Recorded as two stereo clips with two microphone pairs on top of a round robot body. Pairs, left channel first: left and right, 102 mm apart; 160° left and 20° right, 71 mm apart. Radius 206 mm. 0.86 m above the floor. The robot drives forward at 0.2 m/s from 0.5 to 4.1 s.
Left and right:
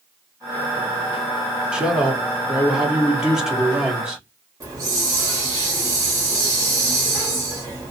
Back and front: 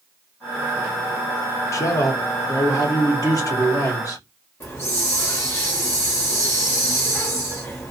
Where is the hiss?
150° right, 0.7 m.